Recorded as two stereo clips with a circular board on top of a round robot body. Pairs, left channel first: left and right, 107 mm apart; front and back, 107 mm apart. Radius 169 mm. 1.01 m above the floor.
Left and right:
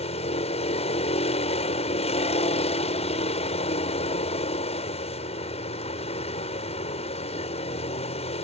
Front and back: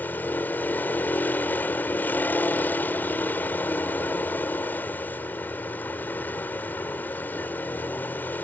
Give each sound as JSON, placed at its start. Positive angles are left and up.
{"t": 0.0, "sound": "a vehicle", "azimuth_deg": 75}